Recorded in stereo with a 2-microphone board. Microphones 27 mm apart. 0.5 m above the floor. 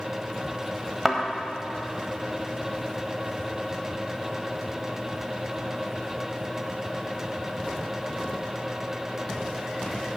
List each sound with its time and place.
1.1 s a thud: 5° right (ahead or behind), 1.2 m